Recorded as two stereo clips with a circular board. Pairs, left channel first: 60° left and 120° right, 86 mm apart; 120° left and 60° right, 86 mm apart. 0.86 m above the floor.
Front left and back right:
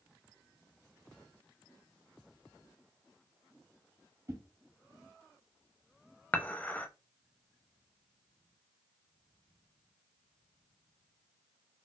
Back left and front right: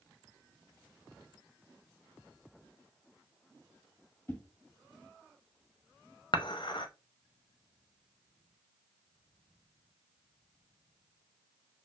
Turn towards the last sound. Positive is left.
turn(degrees=130)